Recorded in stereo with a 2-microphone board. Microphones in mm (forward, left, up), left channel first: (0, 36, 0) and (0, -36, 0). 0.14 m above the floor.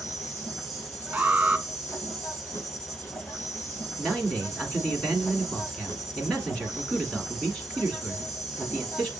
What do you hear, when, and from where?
0.0 s an insect: 45° left (ahead or behind), 2.5 m
1.1 s an alarm: 20° right (ahead or behind), 0.7 m
4.0 s a man speaking: 15° left (ahead or behind), 1.3 m